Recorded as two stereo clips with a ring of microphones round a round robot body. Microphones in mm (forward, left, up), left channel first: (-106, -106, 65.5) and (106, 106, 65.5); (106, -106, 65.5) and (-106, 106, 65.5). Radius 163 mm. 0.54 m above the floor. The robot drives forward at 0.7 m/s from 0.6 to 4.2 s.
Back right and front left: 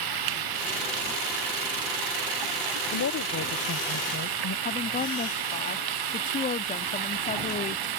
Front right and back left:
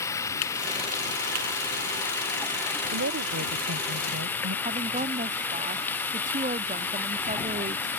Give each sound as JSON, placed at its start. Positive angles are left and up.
{"t": 0.0, "sound": "running water", "azimuth_deg": 35}
{"t": 2.9, "sound": "a woman speaking", "azimuth_deg": 180}
{"t": 4.7, "sound": "a woman speaking", "azimuth_deg": 180}